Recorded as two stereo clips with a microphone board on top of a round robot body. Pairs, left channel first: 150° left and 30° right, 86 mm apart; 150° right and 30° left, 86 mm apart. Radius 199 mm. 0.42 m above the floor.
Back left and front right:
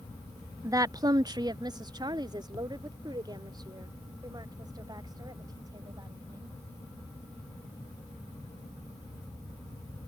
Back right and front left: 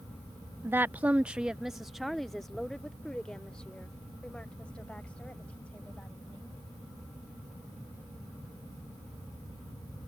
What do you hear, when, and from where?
0.6 s a woman speaking: 15° right; by 6.6 s 75° right